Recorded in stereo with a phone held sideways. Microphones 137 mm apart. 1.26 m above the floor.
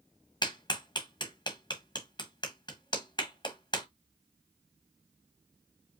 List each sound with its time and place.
0.4 s a clap: 35° left (ahead or behind), 1.3 m